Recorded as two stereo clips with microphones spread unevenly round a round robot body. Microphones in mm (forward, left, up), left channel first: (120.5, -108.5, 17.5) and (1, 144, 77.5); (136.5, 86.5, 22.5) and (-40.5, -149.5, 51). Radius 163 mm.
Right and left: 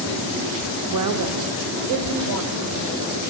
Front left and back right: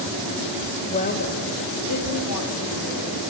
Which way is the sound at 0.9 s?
115° left.